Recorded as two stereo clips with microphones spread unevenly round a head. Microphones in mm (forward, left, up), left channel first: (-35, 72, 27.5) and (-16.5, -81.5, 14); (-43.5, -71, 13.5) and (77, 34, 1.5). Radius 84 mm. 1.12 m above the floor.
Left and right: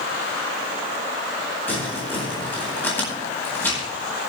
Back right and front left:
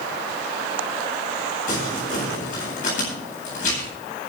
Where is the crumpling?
175° left, 9.5 m.